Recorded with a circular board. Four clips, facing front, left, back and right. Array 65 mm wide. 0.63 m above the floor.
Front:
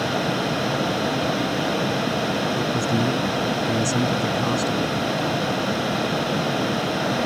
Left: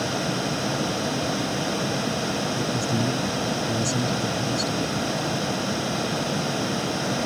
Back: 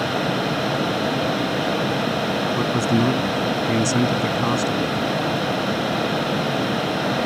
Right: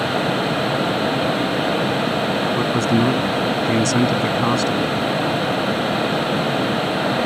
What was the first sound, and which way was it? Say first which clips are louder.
A man speaking: right 8 dB, back 2 dB; 120° right.